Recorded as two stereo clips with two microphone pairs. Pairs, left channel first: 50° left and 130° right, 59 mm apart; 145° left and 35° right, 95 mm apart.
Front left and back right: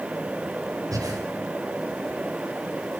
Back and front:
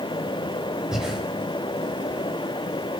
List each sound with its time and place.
0.9 s breathing: 115° right, 4.5 m